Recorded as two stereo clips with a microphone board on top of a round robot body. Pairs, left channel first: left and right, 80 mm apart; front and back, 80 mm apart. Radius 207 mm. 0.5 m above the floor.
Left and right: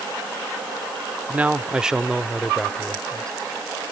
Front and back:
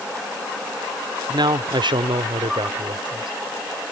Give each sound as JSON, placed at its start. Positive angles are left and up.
{"t": 1.3, "sound": "a man speaking", "azimuth_deg": -160}